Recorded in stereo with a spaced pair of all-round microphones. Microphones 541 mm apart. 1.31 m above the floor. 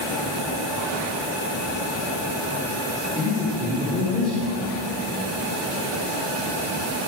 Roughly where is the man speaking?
Centre.